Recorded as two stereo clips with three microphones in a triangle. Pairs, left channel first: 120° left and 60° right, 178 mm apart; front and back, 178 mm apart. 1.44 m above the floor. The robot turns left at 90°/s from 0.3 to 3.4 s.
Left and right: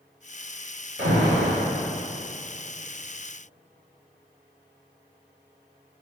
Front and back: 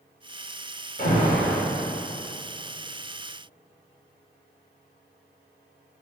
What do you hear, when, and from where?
1.0 s an alarm: 40° right, 1.9 m; by 1.6 s 95° right, 1.9 m